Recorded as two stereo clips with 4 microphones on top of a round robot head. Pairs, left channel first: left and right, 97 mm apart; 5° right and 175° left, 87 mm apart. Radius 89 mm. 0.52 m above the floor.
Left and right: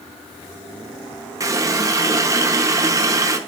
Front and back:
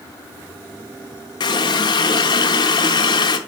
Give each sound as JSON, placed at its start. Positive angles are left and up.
{"t": 1.4, "sound": "a running tap", "azimuth_deg": -35, "distance_m": 0.7}